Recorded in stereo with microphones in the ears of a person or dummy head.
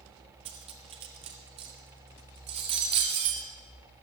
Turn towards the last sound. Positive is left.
turn(degrees=-25)  # may be behind; listen again after turning